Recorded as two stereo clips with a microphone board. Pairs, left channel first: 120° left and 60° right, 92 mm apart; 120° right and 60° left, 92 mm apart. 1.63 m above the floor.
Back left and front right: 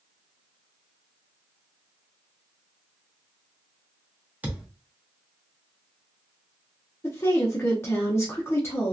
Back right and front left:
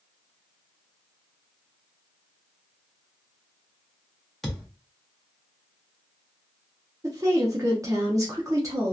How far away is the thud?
About 0.9 m.